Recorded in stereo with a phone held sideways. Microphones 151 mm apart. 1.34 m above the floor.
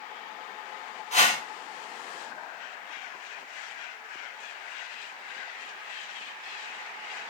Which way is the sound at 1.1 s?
45° left (ahead or behind).